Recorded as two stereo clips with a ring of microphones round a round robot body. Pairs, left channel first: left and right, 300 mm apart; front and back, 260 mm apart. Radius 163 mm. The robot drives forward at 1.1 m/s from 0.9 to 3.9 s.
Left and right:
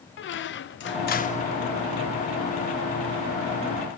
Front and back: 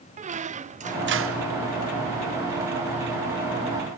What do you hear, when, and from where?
0.2 s a squeak: 125° left, 0.6 m; by 1.5 s 160° left, 1.1 m